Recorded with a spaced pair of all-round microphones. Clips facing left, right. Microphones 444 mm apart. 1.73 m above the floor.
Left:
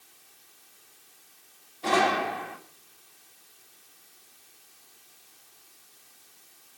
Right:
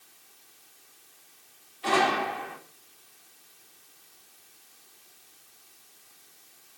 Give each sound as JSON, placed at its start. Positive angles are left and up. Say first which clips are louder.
{"t": 1.8, "sound": "a gunshot", "louder": "left 1 dB", "side_deg": 60, "distance_m": 4.0}